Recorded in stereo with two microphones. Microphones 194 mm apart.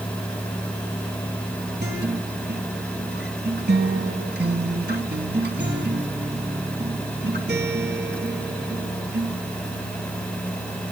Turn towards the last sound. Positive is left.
turn(degrees=-60)  # may be behind; listen again after turning